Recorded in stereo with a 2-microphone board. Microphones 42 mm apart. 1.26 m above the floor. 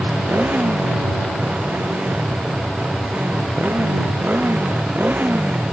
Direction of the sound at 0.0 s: 40° right (ahead or behind).